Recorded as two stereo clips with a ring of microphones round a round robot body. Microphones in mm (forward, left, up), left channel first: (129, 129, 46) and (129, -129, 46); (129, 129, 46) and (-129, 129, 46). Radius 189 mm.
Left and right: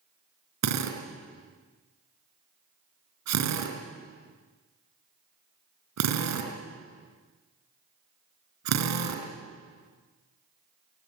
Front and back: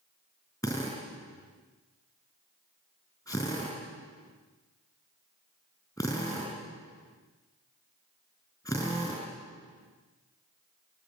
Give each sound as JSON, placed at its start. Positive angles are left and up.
{"t": 0.6, "sound": "a drill", "azimuth_deg": -80, "distance_m": 4.0}